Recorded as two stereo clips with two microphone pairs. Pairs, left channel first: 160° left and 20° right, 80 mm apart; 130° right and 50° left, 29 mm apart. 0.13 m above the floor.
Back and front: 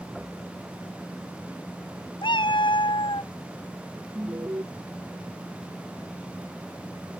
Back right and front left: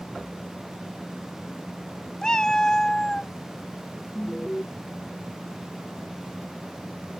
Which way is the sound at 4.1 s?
65° right.